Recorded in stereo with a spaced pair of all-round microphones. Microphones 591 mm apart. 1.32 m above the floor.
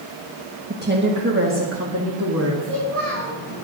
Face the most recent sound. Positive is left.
turn(degrees=-65)  # may be behind; listen again after turning